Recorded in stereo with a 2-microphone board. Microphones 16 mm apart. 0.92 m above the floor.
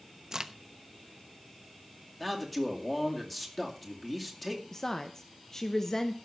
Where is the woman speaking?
35° left (ahead or behind), 0.8 m.